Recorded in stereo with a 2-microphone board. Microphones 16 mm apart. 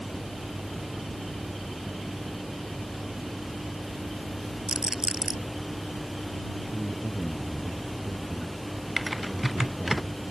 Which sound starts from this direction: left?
A man speaking, at 6.7 s.